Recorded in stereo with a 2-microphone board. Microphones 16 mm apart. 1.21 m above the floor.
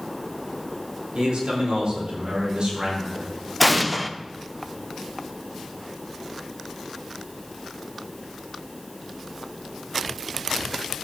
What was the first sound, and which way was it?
A man speaking, 85° right.